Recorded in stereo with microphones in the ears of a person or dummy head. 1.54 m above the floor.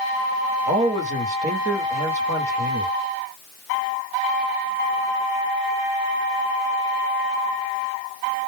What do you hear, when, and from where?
0.7 s a man speaking: 40° right (ahead or behind), 1.2 m